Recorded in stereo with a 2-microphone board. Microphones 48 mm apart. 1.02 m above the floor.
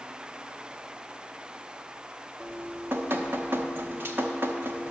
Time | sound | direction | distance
2.4 | dripping | 50° right (ahead or behind) | 0.9 m